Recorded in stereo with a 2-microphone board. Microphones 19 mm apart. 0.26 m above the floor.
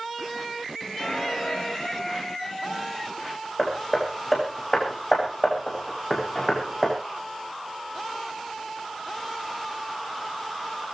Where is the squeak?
35° left (ahead or behind), 3 m.